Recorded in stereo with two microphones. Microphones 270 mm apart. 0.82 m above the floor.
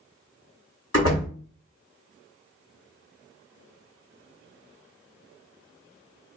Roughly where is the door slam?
Left.